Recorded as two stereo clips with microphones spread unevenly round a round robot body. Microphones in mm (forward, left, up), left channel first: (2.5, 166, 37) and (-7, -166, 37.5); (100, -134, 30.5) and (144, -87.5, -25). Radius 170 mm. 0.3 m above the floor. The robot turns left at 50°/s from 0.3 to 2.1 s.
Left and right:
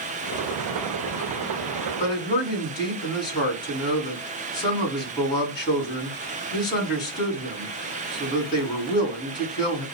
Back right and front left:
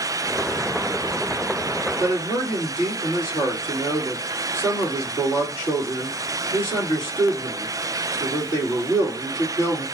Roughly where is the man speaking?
Behind.